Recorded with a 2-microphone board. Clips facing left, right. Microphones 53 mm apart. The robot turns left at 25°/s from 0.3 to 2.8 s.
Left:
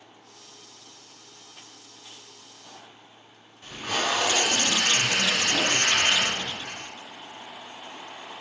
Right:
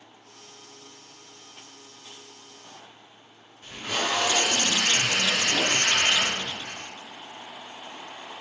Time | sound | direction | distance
3.6 | tape being pulled | 55° left (ahead or behind) | 1.8 m